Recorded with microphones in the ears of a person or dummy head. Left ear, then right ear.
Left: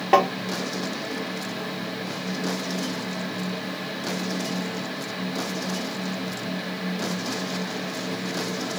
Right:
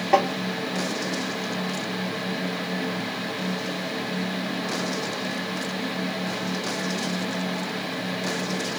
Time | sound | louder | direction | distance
0.1 | tapping | left 2 dB | 20° left (ahead or behind) | 0.9 m